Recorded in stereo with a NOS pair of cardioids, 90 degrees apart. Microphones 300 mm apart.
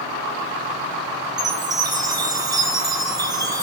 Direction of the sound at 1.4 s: 10° right.